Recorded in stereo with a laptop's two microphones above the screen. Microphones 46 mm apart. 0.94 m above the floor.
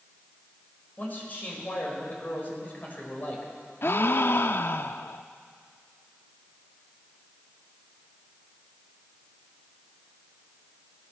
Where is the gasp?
50° left (ahead or behind), 0.5 m.